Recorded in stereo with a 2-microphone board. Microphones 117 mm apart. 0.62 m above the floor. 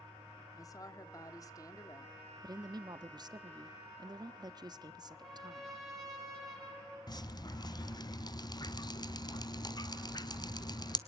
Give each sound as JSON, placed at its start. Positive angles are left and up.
{"t": 0.6, "sound": "a woman speaking", "side_deg": 30, "distance_m": 1.4}
{"t": 2.4, "sound": "a woman speaking", "side_deg": -35, "distance_m": 0.8}
{"t": 5.1, "sound": "a trumpet", "side_deg": 0, "distance_m": 7.0}
{"t": 7.1, "sound": "dripping", "side_deg": 35, "distance_m": 0.8}